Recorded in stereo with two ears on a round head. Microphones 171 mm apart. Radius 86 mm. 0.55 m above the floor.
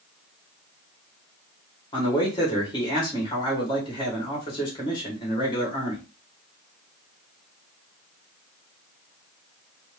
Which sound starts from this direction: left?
A man speaking, at 1.9 s.